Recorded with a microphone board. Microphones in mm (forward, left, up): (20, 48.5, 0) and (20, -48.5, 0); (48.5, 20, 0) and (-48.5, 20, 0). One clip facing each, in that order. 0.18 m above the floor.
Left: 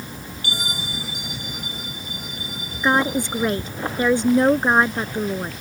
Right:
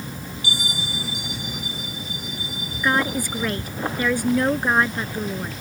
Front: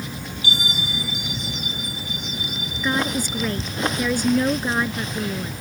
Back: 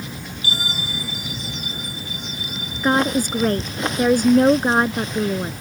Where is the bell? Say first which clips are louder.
Even, front 1 dB; 130° left.